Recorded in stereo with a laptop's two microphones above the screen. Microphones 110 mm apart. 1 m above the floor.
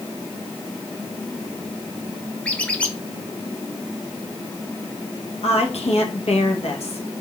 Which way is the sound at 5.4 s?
70° left (ahead or behind).